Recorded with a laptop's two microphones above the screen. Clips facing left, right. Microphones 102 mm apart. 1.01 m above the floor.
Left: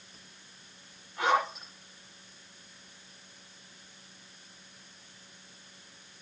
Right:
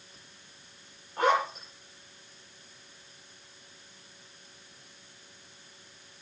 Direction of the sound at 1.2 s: 40° right (ahead or behind).